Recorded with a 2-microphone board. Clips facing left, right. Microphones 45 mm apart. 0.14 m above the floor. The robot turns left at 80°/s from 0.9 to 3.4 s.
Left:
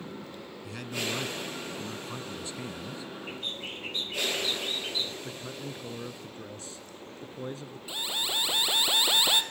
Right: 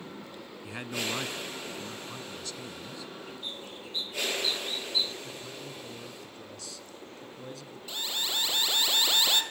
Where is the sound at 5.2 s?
30° left (ahead or behind), 2 m.